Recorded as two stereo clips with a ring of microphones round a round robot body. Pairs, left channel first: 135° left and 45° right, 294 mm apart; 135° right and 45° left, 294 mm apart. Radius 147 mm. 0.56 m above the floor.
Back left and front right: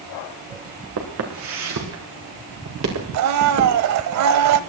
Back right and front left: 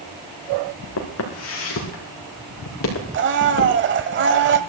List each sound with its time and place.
1.0 s footsteps: 90° right, 3.5 m
3.1 s a blender: 10° right, 0.9 m